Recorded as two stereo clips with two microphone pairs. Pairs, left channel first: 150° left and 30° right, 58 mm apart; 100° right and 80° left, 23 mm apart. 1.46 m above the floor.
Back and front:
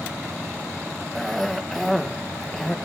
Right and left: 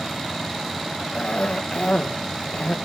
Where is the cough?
125° right, 1.1 m.